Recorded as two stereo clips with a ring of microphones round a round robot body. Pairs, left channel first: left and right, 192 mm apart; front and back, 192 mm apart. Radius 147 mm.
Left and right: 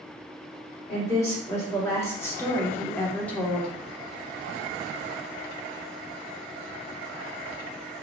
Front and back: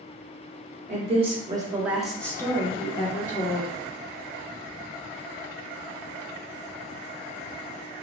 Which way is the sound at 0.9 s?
160° left.